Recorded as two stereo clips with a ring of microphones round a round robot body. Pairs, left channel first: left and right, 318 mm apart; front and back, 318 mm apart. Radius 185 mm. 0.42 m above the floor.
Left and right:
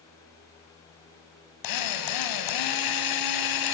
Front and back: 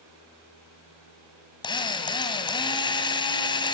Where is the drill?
75° left, 2.5 m.